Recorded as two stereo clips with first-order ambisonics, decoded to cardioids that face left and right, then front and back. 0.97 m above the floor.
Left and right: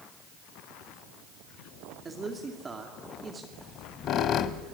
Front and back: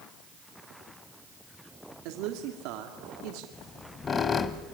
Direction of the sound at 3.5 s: 60° left.